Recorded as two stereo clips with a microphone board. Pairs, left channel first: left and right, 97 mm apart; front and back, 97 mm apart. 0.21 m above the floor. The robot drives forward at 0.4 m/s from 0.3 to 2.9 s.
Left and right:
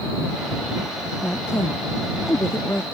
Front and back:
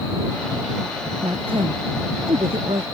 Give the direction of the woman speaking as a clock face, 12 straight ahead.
7 o'clock.